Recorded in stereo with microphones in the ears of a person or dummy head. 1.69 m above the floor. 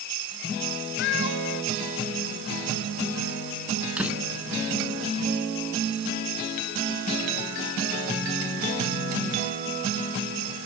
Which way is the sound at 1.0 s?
65° left (ahead or behind).